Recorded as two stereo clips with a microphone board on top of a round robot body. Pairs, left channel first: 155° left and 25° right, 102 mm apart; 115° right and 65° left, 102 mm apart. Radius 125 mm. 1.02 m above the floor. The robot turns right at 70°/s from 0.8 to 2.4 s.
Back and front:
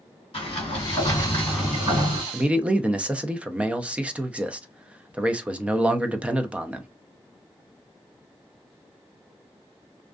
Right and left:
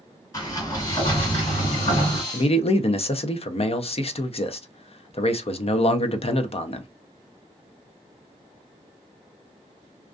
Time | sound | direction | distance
0.3 | a sliding door | 170° right | 2.0 m
2.3 | a man speaking | 105° right | 0.5 m